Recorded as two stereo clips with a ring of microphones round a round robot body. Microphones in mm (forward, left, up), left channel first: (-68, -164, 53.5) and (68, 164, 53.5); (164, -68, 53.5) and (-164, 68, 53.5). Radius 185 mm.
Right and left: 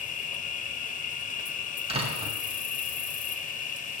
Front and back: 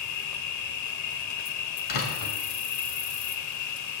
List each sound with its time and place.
0.0 s an insect: 50° right, 1.0 m
1.9 s a door slam: 5° right, 1.9 m